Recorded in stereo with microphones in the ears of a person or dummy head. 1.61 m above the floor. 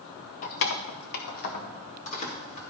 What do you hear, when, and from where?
0.4 s keys jangling: 50° left (ahead or behind), 0.7 m; by 2.6 s 35° left (ahead or behind), 1.9 m